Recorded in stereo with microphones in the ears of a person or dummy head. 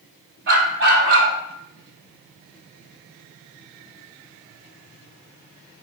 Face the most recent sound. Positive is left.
turn(degrees=-65)  # may be behind; listen again after turning